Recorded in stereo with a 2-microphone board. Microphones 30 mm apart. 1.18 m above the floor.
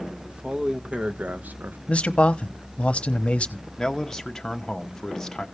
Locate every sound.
0.3 s a man speaking: 35° right (ahead or behind), 1.3 m; by 1.8 s 80° right, 0.7 m
1.9 s a man speaking: 45° left (ahead or behind), 0.8 m
3.8 s a man speaking: 15° left (ahead or behind), 1.0 m